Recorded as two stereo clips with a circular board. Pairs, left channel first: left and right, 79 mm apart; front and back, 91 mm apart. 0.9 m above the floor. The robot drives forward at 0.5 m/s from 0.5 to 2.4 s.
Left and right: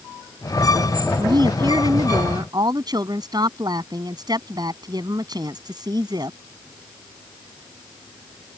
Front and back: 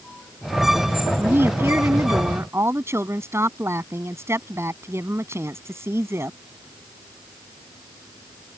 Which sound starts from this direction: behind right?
A woman speaking, at 1.2 s.